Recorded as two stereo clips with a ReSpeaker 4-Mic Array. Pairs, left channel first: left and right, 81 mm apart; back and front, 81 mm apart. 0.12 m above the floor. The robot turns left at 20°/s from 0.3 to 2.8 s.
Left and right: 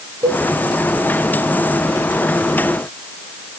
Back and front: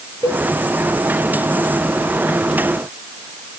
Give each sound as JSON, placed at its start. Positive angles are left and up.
{"t": 0.2, "sound": "a cowbell", "azimuth_deg": -130, "distance_m": 2.5}